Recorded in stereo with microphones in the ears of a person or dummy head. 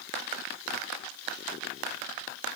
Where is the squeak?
I don't hear a squeak.